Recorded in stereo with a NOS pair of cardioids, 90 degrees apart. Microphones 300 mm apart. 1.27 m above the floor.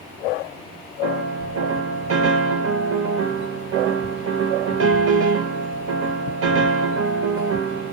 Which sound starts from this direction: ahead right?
A piano, at 1.0 s.